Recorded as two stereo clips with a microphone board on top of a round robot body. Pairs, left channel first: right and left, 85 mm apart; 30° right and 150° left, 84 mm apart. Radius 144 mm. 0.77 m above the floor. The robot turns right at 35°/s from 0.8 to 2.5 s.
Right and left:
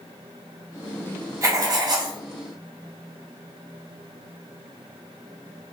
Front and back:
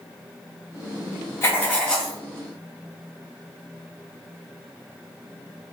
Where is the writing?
35° left, 0.6 m; by 2.2 s 60° left, 0.6 m.